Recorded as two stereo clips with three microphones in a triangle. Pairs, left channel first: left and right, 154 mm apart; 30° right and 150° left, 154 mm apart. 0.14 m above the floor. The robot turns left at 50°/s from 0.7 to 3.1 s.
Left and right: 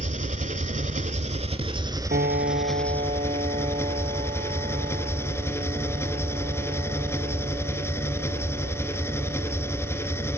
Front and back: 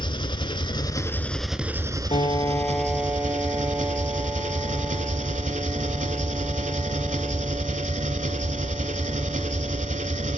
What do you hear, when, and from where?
0.0 s an engine running: 80° right, 0.7 m; by 10.4 s 160° left, 0.7 m
2.1 s a piano: 80° right, 0.8 m; by 10.4 s 130° right, 0.8 m